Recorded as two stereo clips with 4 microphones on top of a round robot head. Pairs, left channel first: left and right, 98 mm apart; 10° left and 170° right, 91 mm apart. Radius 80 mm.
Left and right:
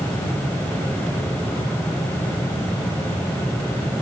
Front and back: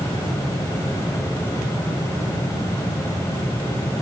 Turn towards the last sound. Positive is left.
No sound to turn to.